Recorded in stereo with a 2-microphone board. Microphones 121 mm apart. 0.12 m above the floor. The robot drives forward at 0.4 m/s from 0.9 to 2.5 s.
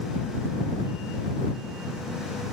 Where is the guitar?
I don't hear a guitar.